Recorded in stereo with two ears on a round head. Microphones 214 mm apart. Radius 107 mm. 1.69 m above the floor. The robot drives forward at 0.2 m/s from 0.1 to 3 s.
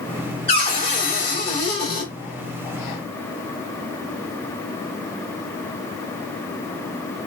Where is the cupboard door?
25° left (ahead or behind), 2.5 m.